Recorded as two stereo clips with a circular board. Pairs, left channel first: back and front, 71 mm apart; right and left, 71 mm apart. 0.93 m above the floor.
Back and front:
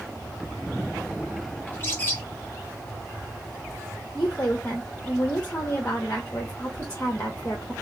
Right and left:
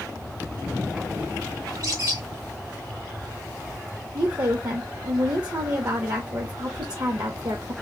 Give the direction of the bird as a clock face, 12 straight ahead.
8 o'clock.